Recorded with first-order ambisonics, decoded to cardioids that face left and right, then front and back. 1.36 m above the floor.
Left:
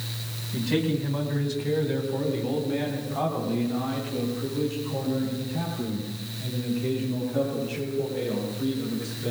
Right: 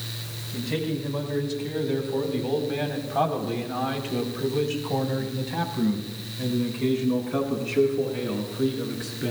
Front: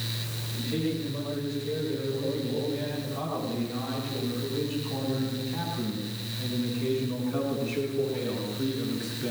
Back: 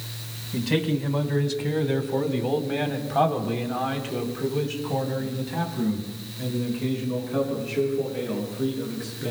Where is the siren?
I don't hear a siren.